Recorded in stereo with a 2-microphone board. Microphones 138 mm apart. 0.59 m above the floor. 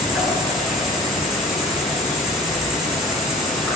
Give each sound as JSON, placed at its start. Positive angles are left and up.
{"t": 0.0, "sound": "an insect", "side_deg": 0, "distance_m": 8.5}